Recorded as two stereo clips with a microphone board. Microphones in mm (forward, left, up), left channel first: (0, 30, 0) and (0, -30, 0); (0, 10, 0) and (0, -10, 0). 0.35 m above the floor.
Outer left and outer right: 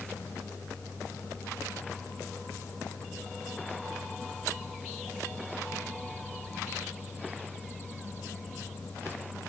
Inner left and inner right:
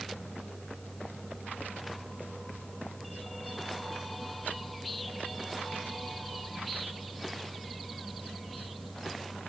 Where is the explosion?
No explosion in this recording.